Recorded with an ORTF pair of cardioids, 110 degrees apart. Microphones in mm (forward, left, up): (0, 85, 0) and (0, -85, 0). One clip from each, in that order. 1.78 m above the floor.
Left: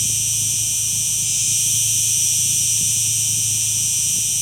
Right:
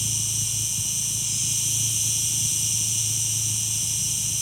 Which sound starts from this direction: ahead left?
An insect, at 0.0 s.